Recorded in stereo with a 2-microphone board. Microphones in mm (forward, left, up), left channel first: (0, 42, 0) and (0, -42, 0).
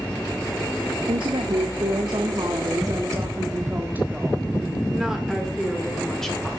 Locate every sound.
1.1 s a woman speaking: 85° right, 1.7 m; by 6.6 s 5° left (ahead or behind), 3 m